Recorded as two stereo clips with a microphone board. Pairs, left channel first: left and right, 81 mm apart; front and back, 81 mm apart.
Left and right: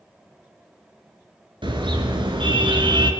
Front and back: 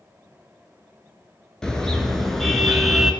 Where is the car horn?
85° right, 6.5 m; by 3.1 s 95° right, 5 m.